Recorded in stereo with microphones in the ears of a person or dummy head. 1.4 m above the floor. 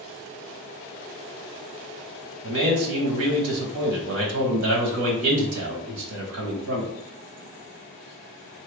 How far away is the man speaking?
About 1.3 m.